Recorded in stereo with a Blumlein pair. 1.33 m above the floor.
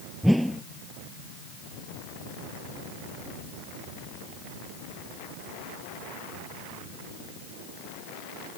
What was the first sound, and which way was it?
A whoosh, straight ahead.